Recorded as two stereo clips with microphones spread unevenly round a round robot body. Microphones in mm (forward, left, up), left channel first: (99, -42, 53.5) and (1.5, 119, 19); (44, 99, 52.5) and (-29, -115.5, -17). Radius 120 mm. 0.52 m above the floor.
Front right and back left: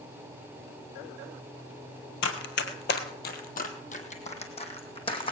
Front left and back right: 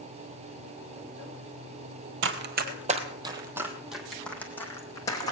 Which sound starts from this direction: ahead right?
Running footsteps, at 2.2 s.